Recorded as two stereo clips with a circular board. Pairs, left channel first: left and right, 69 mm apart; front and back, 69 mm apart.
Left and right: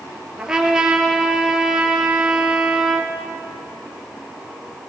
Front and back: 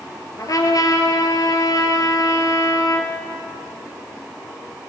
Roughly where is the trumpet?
Ahead.